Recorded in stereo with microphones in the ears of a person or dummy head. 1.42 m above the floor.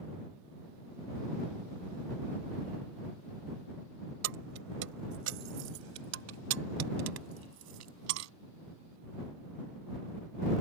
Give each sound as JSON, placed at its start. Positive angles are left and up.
{"t": 4.2, "sound": "keys jangling", "side_deg": -70}